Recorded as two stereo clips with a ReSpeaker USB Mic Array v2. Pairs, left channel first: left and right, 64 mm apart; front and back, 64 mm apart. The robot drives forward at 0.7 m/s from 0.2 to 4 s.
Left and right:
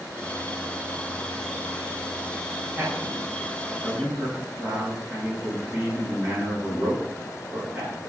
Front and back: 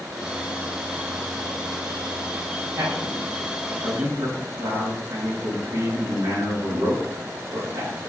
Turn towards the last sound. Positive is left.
turn(degrees=-165)